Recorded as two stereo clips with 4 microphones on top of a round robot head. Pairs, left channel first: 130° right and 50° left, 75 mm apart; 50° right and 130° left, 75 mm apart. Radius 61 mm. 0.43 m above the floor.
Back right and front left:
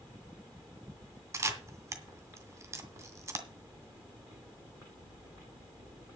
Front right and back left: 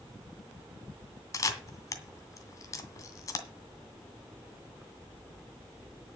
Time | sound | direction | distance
1.3 | a camera shutter | straight ahead | 2 m